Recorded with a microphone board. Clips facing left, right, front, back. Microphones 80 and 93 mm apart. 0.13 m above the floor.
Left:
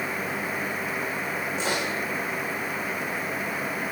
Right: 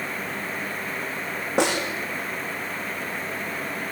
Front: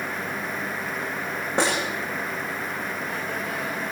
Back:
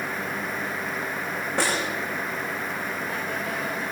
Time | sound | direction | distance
1.6 | a snare drum | 70° right | 9 m